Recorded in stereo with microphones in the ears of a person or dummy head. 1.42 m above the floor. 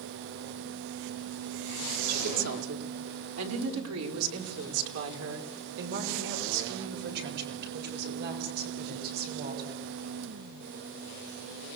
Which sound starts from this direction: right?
A woman speaking, at 2.1 s.